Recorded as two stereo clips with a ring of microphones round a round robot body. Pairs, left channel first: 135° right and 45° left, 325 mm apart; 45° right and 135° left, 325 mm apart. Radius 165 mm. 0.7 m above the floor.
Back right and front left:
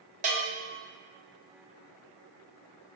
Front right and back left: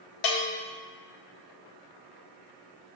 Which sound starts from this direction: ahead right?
A bell, at 0.2 s.